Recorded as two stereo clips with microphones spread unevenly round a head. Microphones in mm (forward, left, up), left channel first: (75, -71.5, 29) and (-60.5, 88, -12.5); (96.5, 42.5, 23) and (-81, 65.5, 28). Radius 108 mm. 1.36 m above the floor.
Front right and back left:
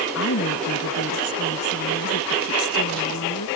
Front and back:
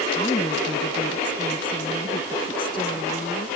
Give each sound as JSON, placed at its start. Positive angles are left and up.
{"t": 0.1, "sound": "a woman speaking", "azimuth_deg": -80}